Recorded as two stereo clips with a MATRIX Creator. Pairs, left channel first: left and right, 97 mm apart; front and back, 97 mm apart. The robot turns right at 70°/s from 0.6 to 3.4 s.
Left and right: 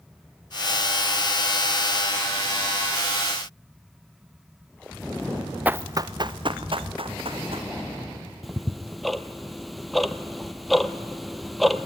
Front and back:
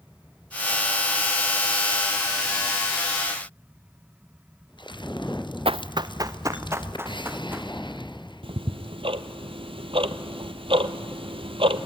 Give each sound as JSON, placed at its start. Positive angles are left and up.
{"t": 5.7, "sound": "running footsteps", "azimuth_deg": -165, "distance_m": 0.5}
{"t": 8.4, "sound": "ticking", "azimuth_deg": 180, "distance_m": 0.8}